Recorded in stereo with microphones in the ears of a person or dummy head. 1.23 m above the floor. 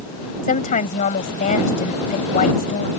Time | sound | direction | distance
0.4 | a woman speaking | 40° left (ahead or behind) | ?